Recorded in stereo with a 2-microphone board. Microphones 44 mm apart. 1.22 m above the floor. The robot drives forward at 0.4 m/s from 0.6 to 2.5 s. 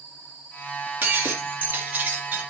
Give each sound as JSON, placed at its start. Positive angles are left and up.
{"t": 1.0, "sound": "breaking glass", "side_deg": -50, "distance_m": 2.5}